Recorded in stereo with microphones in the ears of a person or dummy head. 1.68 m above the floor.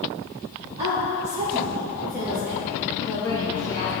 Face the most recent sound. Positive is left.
turn(degrees=20)  # may be behind; listen again after turning